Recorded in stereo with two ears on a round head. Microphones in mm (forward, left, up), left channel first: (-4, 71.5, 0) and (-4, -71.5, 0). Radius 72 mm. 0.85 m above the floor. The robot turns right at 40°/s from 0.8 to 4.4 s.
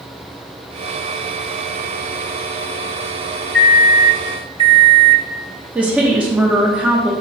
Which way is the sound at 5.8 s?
10° right (ahead or behind).